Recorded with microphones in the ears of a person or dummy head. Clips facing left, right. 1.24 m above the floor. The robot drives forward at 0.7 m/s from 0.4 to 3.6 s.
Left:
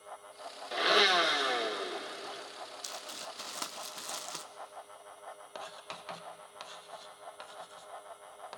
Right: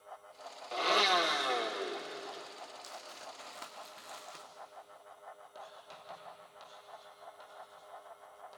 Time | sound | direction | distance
0.7 | a blender | 20° left (ahead or behind) | 1.0 m
2.8 | crumpling | 40° left (ahead or behind) | 1.4 m
5.5 | writing | 75° left (ahead or behind) | 1.4 m